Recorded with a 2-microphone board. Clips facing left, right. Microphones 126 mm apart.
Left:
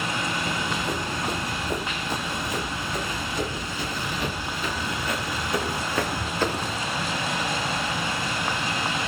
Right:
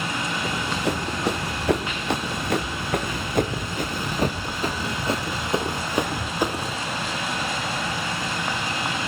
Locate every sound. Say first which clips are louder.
0.5 s running footsteps: right 2 dB; 85° right, 4.5 m; by 6.8 s 5° right (ahead or behind), 3.5 m